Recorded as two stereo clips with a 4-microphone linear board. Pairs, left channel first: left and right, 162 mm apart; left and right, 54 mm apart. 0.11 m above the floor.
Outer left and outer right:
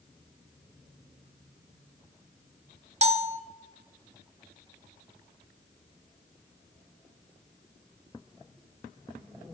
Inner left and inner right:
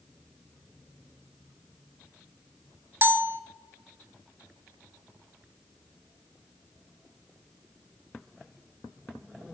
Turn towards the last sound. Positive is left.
turn(degrees=-40)  # may be behind; listen again after turning